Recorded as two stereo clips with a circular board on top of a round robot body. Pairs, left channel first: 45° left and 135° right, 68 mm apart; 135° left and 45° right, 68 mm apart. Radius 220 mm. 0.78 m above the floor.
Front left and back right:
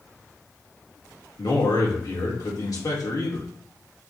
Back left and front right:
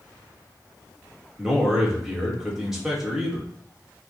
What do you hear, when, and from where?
1.4 s a man speaking: 40° left, 1.6 m